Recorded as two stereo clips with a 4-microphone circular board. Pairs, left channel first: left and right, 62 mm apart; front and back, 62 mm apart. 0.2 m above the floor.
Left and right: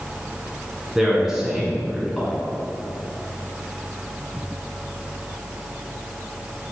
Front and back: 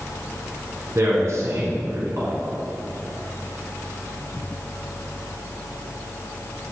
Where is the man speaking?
170° right, 2 m.